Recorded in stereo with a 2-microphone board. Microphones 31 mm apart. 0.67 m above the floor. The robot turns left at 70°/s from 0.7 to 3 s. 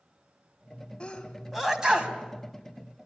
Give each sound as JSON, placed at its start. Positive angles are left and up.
{"t": 1.0, "sound": "a sneeze", "side_deg": 30, "distance_m": 3.5}